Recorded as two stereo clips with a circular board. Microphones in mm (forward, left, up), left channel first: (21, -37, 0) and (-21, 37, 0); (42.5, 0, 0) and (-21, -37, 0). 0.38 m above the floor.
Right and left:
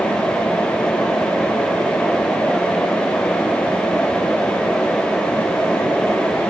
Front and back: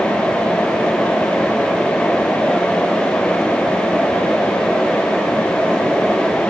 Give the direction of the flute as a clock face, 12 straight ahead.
I don't hear a flute.